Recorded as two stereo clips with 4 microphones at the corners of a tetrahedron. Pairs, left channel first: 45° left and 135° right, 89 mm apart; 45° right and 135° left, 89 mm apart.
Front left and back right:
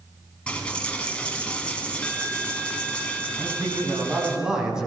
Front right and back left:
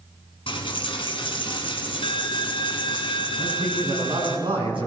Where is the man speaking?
145° left, 4 m.